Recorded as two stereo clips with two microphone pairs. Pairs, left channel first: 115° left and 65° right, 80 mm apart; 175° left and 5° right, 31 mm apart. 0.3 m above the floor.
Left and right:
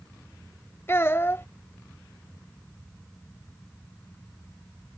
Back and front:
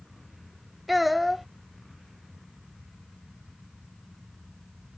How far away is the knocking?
No knocking in this recording.